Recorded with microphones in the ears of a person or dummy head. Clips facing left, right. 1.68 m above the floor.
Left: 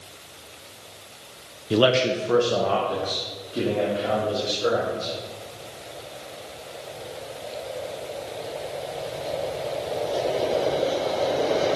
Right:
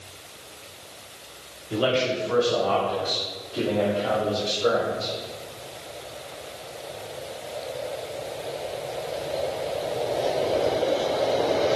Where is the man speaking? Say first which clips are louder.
Left 4 dB; 45° left (ahead or behind), 0.8 m; by 5.1 s 20° left (ahead or behind), 5 m.